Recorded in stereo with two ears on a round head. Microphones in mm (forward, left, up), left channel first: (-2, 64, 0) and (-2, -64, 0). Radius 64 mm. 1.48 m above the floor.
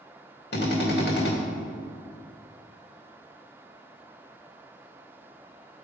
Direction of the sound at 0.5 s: 85° left.